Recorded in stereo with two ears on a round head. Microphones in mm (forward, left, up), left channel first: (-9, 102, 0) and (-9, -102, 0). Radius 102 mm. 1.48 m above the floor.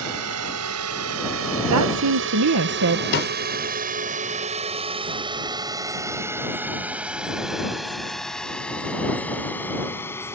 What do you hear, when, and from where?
0.0 s a drone: 85° right; by 10.4 s 10° left (ahead or behind)
1.7 s a woman speaking: 75° right (ahead or behind)
3.1 s a snare drum: 50° left (ahead or behind)